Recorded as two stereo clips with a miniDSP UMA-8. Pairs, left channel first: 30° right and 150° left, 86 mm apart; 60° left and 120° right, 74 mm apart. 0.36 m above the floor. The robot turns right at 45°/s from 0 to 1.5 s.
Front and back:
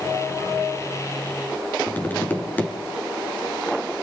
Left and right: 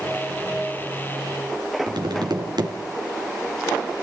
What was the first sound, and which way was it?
Tapping, 100° right.